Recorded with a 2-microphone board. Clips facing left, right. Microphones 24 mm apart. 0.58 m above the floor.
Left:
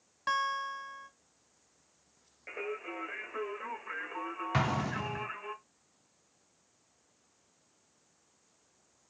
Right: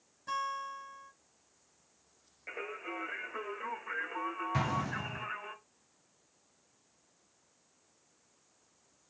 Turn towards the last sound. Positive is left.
turn(degrees=40)  # may be behind; listen again after turning